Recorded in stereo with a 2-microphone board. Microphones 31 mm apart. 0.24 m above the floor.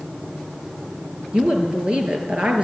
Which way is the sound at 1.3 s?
35° right (ahead or behind).